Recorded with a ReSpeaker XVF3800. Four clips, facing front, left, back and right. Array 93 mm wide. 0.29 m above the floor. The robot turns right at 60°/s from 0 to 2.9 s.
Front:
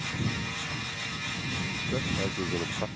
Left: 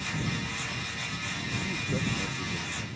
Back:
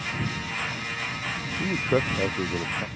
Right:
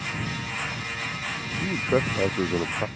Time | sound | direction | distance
1.6 | a man speaking | 150° right | ?